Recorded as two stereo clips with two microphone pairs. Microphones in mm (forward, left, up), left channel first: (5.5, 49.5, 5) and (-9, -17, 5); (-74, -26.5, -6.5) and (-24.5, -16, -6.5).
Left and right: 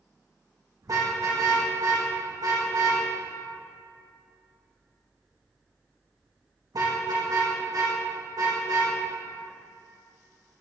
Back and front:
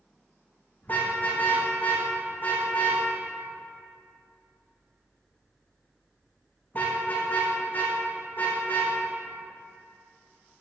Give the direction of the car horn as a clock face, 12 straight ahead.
4 o'clock.